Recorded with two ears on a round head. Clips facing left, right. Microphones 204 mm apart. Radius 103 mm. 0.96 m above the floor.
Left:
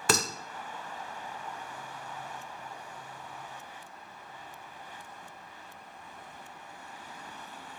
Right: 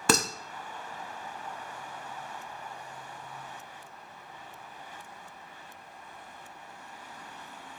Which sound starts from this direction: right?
Dishes clattering, at 0.1 s.